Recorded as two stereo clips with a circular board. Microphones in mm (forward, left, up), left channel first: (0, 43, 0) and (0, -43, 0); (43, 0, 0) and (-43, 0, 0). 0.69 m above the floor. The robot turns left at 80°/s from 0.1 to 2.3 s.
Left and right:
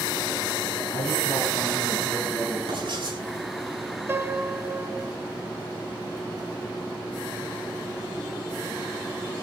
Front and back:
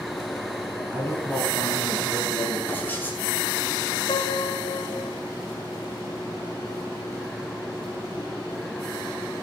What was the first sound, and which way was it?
A man speaking, 110° left.